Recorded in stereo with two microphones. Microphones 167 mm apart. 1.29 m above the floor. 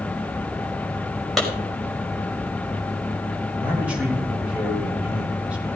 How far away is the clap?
About 6 m.